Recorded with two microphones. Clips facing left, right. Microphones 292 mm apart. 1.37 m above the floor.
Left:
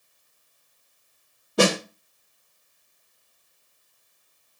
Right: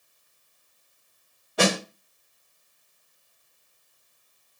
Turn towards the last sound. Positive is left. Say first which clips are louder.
# left 3 dB
turn(degrees=50)  # may be behind; listen again after turning